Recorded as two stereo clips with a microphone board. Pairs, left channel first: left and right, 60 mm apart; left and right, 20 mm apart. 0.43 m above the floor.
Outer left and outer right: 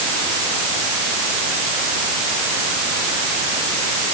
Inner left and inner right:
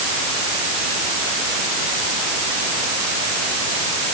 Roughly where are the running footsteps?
I don't hear running footsteps.